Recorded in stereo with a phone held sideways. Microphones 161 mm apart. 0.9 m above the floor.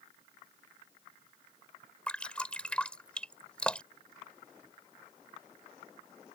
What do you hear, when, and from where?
2.1 s dripping: 5° left (ahead or behind)